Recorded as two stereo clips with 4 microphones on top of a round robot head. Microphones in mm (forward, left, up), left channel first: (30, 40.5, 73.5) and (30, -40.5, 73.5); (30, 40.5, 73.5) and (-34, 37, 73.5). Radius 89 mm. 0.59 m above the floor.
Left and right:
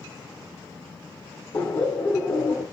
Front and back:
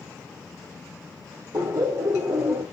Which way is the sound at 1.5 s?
155° left.